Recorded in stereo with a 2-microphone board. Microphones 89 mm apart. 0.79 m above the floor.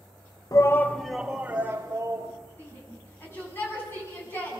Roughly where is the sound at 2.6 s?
Left.